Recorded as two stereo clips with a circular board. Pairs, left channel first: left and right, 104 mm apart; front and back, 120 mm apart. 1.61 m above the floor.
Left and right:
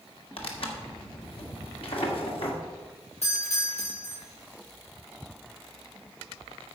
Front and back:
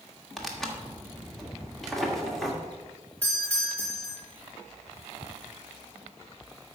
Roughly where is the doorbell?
Left.